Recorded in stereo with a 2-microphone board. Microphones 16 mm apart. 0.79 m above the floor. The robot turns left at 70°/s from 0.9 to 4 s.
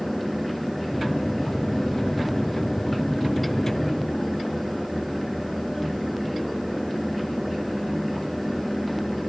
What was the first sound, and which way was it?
Only background noise.